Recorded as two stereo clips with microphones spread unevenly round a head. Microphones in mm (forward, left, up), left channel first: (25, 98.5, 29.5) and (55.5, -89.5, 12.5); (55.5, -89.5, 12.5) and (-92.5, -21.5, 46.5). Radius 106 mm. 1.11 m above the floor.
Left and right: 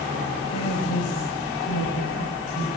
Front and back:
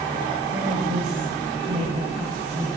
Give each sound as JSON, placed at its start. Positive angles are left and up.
{"t": 0.5, "sound": "a woman speaking", "azimuth_deg": 105, "distance_m": 6.5}